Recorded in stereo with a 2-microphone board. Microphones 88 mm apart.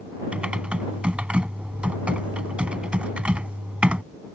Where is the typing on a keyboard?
15° right (ahead or behind).